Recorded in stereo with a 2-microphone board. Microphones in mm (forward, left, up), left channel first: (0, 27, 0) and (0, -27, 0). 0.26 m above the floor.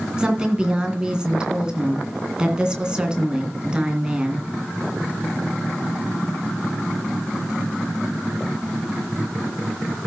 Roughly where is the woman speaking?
Centre.